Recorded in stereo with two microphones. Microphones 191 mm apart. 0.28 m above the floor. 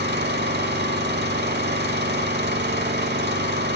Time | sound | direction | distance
0.0 | an engine running | 60° right (ahead or behind) | 0.9 m